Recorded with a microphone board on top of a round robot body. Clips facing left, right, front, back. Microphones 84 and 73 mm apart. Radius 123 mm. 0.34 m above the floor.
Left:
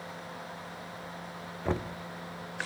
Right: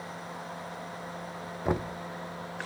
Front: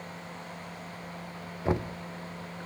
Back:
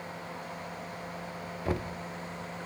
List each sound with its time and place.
1.6 s knocking: 35° right, 0.5 m